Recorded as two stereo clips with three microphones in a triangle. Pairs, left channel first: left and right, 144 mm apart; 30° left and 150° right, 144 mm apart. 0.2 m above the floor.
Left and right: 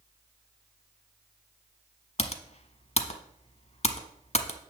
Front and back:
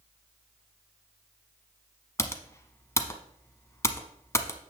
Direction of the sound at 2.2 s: 95° left.